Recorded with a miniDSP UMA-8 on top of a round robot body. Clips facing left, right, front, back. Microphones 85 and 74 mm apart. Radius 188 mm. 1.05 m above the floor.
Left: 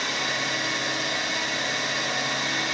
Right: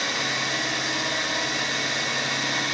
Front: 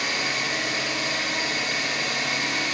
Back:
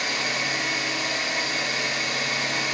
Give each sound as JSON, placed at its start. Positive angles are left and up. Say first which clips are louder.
{"t": 0.0, "sound": "an engine running", "louder": "right 1 dB, even", "azimuth_deg": -110, "distance_m": 2.0}